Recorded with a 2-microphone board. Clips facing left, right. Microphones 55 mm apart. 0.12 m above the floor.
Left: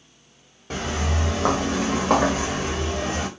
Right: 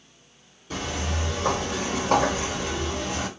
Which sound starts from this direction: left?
Footsteps, at 0.7 s.